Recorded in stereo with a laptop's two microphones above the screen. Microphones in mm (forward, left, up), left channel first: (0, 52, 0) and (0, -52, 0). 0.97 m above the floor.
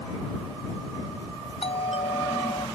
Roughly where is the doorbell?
Left.